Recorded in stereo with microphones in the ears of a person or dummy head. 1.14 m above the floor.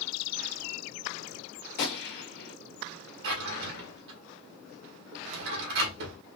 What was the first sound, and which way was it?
A gunshot, 50° left (ahead or behind).